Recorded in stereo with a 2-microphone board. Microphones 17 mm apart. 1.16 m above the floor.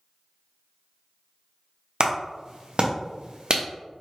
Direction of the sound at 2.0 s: 60° right (ahead or behind).